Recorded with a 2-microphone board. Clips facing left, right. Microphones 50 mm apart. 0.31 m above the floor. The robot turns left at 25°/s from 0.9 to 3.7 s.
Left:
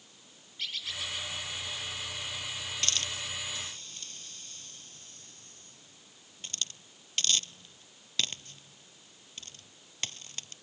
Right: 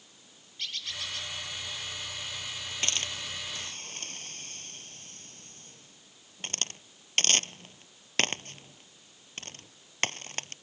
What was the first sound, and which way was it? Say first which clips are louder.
A bird: even; 5° left (ahead or behind).